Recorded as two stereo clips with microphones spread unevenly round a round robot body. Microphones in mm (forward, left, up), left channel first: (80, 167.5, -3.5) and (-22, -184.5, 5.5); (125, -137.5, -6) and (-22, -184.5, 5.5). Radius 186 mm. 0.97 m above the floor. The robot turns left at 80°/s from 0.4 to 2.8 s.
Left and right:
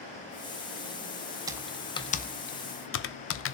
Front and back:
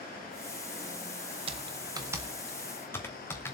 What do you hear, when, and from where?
1.5 s typing on a keyboard: straight behind, 0.5 m; by 3.5 s 75° left, 0.5 m